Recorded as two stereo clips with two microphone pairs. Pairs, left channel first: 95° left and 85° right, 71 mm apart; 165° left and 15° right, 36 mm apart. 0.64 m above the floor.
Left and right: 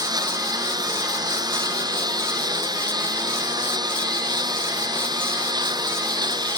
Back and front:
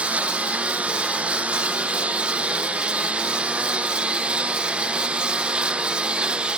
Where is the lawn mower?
65° right; by 6.6 s 75° right.